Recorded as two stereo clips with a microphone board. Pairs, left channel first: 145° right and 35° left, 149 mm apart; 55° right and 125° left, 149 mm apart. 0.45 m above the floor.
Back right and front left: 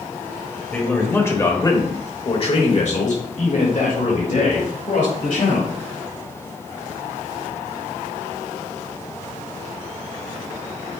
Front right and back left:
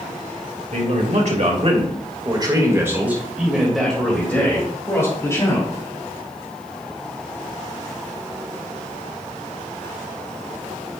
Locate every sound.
0.7 s a man speaking: 135° left, 2 m; by 5.7 s 120° right, 3 m